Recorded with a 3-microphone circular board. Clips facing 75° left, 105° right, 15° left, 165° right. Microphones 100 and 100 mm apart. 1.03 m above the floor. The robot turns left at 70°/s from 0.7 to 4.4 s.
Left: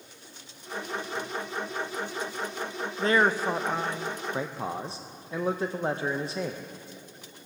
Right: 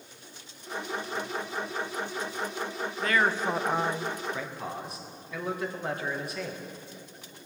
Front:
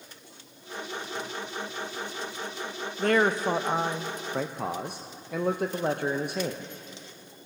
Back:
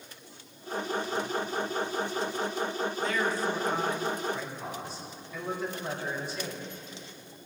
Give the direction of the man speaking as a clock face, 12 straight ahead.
11 o'clock.